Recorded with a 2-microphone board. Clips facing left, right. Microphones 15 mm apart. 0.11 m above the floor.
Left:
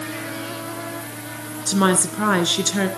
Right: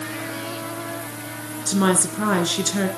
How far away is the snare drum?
No snare drum in this recording.